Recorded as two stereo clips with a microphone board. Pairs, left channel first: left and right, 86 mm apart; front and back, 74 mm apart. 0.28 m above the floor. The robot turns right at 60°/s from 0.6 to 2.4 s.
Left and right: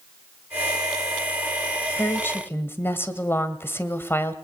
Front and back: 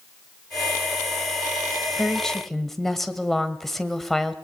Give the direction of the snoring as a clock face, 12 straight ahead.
No snoring in this recording.